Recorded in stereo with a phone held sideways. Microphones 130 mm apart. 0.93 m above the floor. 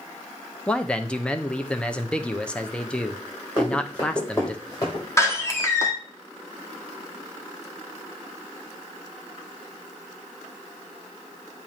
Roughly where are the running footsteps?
Left.